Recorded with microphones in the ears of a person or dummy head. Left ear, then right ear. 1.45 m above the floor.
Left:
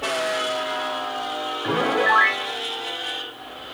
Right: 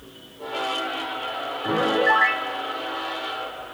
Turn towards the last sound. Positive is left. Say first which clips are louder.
# even
turn(degrees=15)  # may be behind; listen again after turning